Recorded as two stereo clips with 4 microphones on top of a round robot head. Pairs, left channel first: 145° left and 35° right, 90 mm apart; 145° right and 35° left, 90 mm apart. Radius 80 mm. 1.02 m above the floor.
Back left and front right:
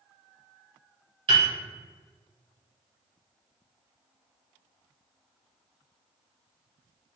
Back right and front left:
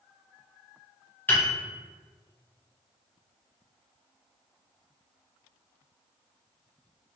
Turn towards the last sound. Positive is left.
turn(degrees=-75)